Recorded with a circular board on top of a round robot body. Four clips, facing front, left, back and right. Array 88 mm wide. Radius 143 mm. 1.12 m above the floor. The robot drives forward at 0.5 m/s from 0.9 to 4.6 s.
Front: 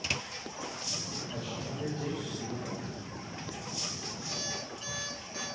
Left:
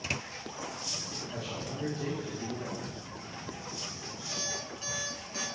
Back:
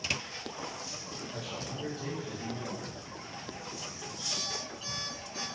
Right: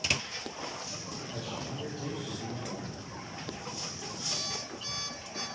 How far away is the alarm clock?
About 3.5 m.